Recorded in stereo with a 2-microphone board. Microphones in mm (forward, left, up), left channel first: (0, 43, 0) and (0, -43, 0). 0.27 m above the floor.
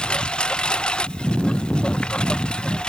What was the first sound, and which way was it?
A lawn mower, 10° left (ahead or behind).